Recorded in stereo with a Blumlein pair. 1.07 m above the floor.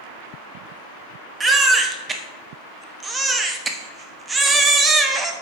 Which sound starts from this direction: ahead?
A baby crying, at 1.4 s.